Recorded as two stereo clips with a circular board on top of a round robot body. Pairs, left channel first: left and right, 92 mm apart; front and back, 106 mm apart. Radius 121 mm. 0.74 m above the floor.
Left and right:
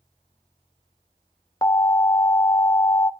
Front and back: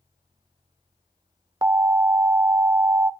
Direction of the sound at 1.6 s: 135° left.